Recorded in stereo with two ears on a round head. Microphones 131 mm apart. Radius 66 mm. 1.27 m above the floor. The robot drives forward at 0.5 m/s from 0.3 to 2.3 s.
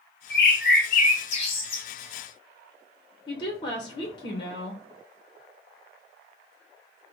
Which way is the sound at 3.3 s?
35° left (ahead or behind).